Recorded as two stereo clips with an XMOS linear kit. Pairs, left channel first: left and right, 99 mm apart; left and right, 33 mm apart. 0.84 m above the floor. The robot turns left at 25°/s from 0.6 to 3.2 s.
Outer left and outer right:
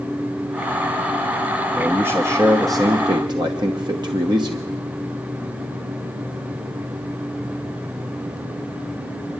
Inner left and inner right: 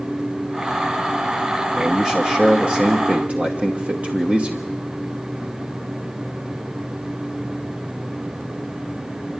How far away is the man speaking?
About 1.1 m.